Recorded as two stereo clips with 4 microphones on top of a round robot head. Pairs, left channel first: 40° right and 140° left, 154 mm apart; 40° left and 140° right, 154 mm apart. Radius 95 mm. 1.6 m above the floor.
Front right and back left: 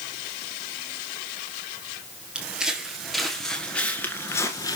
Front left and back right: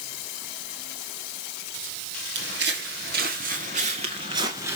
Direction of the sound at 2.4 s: 135° right.